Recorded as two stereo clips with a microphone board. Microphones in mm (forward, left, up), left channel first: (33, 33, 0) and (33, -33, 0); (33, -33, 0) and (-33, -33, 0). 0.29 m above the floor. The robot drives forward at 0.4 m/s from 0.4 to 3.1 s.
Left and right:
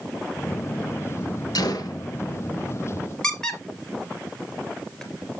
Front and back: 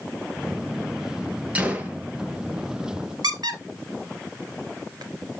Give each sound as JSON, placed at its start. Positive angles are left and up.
{"t": 1.6, "sound": "a gunshot", "azimuth_deg": 105, "distance_m": 1.7}
{"t": 3.2, "sound": "a squeak", "azimuth_deg": 170, "distance_m": 2.0}